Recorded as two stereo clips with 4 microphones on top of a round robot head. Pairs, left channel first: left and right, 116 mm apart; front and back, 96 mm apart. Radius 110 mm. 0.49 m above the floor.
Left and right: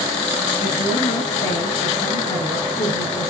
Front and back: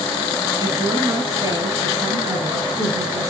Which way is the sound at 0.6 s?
130° left.